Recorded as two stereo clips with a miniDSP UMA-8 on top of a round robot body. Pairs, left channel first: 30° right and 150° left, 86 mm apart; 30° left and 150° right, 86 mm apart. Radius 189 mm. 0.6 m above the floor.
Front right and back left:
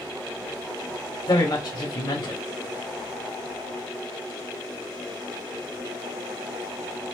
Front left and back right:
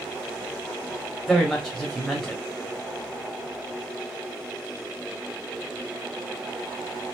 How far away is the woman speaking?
About 1.6 m.